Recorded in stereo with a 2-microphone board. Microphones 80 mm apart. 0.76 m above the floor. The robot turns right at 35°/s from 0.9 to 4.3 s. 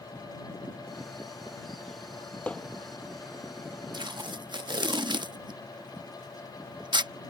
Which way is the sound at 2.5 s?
15° left (ahead or behind).